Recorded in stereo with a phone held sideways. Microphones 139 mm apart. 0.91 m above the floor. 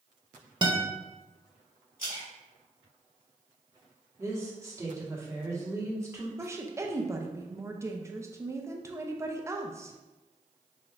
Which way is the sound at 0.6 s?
30° right (ahead or behind).